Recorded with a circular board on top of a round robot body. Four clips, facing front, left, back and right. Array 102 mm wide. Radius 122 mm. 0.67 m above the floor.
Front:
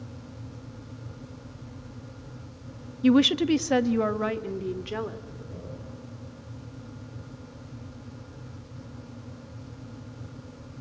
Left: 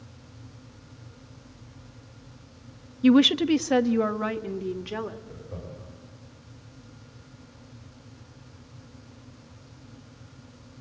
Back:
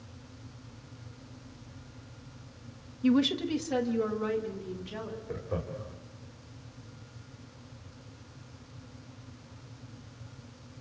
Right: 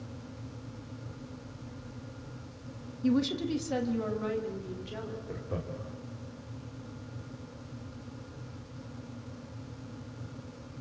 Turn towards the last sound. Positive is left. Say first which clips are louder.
# right 3 dB, back 5 dB
turn(degrees=-140)